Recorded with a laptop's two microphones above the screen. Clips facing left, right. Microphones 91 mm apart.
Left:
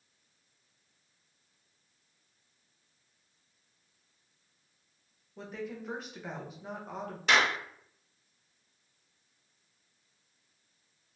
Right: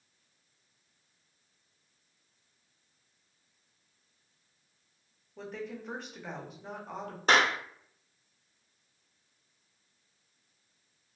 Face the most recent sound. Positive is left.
turn(degrees=-40)  # may be behind; listen again after turning